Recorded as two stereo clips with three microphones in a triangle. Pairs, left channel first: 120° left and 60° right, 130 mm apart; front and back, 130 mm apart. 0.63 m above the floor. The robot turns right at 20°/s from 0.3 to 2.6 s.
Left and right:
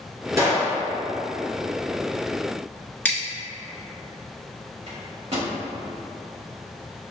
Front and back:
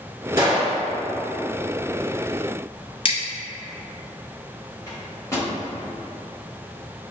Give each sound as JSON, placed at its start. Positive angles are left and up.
{"t": 0.4, "sound": "a gunshot", "azimuth_deg": -120, "distance_m": 1.5}
{"t": 3.0, "sound": "scissors", "azimuth_deg": 45, "distance_m": 1.2}
{"t": 4.9, "sound": "a microwave", "azimuth_deg": -60, "distance_m": 1.3}